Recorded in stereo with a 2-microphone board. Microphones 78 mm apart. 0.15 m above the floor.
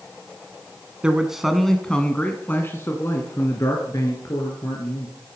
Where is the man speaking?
15° right (ahead or behind), 1.7 m; by 5.2 s 60° left (ahead or behind), 3.5 m.